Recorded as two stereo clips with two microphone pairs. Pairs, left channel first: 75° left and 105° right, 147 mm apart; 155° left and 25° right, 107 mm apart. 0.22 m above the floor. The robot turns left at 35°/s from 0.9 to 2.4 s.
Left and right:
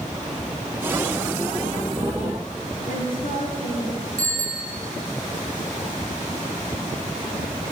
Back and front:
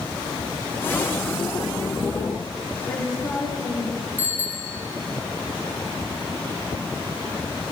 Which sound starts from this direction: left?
A woman speaking, at 2.9 s.